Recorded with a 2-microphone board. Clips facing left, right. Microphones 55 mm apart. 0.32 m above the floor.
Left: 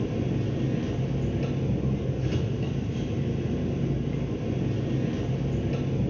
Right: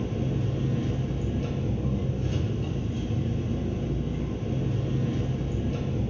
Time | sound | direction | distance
0.0 | an engine running | 55° left (ahead or behind) | 1.4 m